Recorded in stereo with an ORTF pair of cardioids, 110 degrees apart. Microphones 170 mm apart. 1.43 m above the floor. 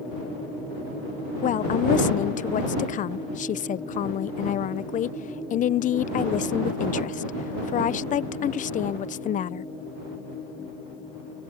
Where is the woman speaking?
50° left.